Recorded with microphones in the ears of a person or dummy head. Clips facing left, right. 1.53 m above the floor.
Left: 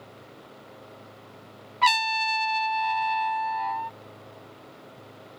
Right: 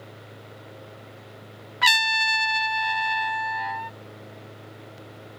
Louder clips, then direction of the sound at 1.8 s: Left 3 dB; 15° right (ahead or behind).